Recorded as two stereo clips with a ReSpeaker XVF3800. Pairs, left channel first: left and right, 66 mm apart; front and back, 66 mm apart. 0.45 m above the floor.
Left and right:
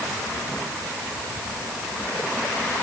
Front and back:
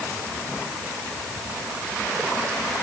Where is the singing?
No singing in this recording.